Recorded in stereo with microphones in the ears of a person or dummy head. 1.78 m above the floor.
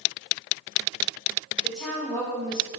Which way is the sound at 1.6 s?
Centre (ahead or behind).